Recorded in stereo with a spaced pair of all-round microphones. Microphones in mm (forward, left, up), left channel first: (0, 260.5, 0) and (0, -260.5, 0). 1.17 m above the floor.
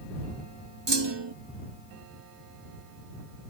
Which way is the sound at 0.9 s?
55° right (ahead or behind).